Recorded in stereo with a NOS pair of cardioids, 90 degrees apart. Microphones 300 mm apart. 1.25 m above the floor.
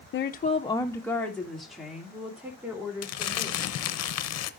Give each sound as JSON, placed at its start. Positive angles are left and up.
{"t": 0.1, "sound": "a woman speaking", "azimuth_deg": 45, "distance_m": 0.6}
{"t": 3.0, "sound": "crumpling", "azimuth_deg": 60, "distance_m": 0.8}